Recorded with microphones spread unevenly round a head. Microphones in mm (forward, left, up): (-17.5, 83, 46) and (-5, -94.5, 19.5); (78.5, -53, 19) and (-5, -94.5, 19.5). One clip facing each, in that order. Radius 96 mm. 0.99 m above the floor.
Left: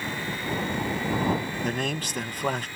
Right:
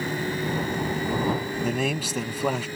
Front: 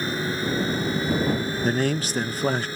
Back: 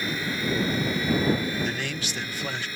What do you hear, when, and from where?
0.0 s a fan: 30° right
1.6 s a man speaking: 15° right